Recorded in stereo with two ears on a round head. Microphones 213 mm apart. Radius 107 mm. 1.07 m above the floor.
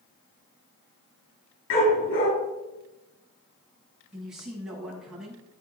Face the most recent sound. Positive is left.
turn(degrees=-5)  # may be behind; listen again after turning